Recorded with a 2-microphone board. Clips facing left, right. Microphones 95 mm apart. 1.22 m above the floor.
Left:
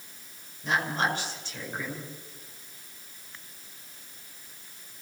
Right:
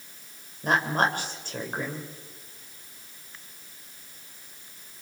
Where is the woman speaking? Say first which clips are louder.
Right 4 dB; 50° right (ahead or behind), 5.5 m.